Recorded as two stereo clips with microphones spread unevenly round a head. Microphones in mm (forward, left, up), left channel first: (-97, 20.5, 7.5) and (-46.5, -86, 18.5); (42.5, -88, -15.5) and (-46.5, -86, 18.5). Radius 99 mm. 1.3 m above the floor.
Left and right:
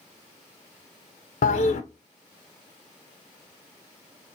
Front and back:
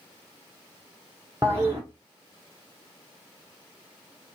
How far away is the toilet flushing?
About 0.6 m.